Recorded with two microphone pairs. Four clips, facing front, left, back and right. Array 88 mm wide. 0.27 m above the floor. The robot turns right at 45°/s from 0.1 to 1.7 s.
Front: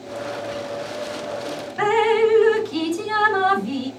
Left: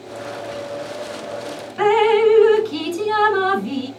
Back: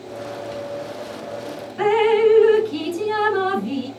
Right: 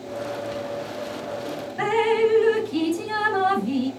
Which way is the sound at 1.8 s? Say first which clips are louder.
Left 6 dB, back 1 dB; 60° left.